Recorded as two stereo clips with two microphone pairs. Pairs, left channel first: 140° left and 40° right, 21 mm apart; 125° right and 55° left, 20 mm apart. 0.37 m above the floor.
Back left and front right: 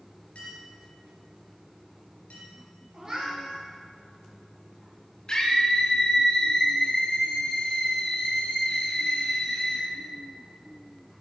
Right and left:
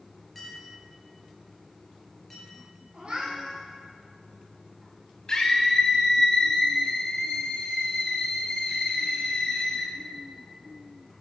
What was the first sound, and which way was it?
A clink, 155° left.